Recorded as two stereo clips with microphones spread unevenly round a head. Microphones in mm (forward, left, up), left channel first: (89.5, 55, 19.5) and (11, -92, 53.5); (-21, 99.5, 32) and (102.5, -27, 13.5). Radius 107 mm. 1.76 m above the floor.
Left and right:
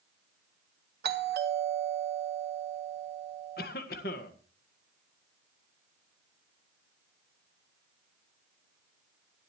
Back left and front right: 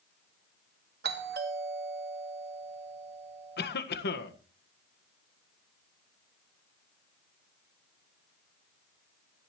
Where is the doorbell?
90° right, 2 m.